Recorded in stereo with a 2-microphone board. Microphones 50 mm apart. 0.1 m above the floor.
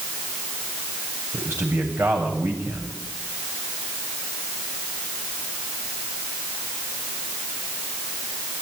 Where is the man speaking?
50° right (ahead or behind), 8.5 m.